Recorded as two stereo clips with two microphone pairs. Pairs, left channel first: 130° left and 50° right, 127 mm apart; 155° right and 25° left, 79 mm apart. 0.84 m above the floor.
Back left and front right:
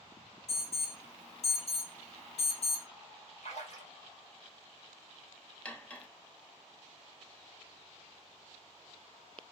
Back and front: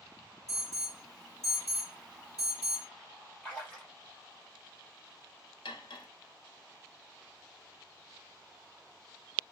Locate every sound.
0.5 s an alarm: 105° left, 2.5 m
3.4 s a splash: 125° left, 1.3 m
5.7 s cutlery clinking: 155° right, 0.6 m